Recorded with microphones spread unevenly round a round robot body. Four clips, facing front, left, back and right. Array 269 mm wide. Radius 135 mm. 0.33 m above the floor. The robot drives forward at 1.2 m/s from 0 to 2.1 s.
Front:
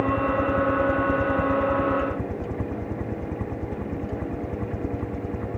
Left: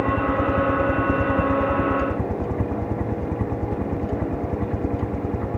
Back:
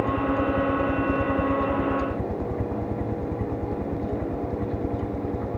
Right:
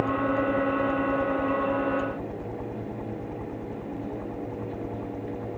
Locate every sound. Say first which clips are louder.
0.0 s a helicopter: left 4 dB, front 1 dB; 85° left; by 5.6 s 90° left